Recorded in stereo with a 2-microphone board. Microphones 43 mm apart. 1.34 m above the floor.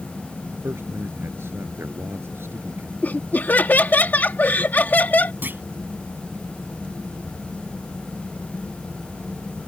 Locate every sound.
0.6 s a man speaking: 70° right (ahead or behind)
3.0 s laughter: 45° left (ahead or behind)
5.4 s a clunk: 50° right (ahead or behind)